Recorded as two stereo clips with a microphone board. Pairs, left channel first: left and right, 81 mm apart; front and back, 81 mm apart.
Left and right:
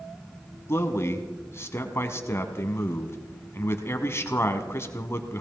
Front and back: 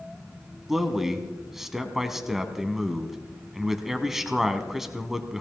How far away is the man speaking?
About 1.3 m.